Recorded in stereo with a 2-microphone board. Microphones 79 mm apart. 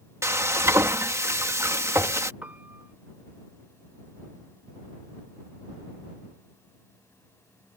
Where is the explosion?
No explosion in this recording.